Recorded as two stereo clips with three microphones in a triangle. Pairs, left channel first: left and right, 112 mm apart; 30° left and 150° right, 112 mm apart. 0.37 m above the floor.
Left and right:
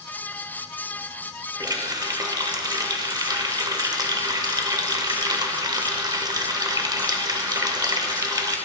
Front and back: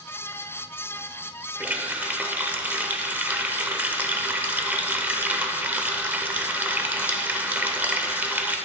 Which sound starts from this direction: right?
A running tap, at 1.6 s.